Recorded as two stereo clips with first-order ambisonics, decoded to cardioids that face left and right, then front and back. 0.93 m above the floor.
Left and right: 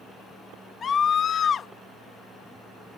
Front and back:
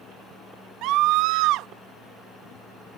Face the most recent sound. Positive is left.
turn(degrees=155)